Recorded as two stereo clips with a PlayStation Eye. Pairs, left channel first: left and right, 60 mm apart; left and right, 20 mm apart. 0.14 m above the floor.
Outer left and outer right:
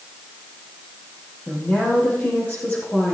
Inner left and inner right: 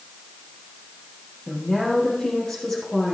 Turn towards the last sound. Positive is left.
turn(degrees=35)  # may be behind; listen again after turning